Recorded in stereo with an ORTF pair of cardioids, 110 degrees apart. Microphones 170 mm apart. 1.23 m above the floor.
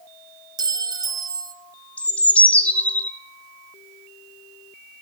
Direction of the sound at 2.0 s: 10° left.